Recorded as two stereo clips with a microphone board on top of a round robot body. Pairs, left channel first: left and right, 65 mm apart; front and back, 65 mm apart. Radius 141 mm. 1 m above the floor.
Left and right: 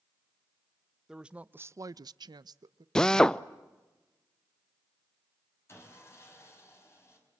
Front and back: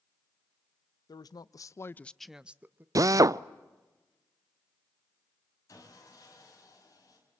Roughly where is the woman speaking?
Ahead.